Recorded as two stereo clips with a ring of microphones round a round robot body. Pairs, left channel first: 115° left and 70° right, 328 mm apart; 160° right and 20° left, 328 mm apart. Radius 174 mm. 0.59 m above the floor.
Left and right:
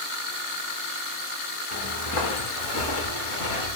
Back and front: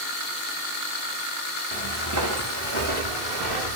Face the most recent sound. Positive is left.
turn(degrees=65)